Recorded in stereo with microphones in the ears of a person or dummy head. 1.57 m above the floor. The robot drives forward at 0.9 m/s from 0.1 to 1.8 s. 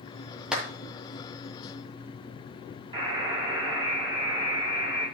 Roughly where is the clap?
Centre.